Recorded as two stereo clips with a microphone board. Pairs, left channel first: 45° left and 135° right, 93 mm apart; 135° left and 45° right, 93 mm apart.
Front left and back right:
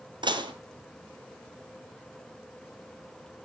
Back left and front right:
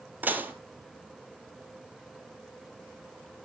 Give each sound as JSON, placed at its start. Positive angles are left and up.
{"t": 0.2, "sound": "dishes clattering", "azimuth_deg": -115, "distance_m": 1.6}